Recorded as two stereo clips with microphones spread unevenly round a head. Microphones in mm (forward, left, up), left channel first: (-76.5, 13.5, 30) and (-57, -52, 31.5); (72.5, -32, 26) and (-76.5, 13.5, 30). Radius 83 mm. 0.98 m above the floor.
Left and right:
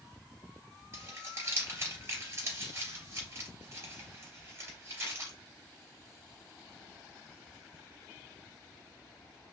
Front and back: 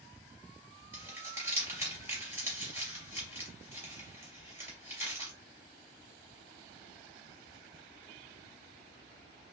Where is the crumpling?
120° right, 3.5 m.